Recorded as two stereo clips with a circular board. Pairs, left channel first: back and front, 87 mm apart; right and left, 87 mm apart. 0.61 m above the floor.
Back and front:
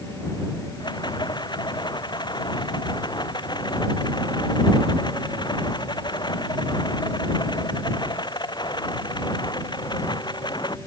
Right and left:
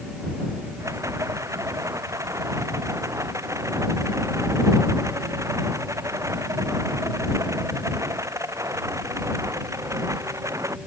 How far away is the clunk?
No clunk in this recording.